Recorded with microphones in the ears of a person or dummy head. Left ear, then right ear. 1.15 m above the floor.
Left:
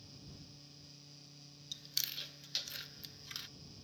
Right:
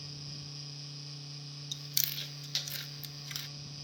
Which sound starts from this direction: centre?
Chewing, at 1.7 s.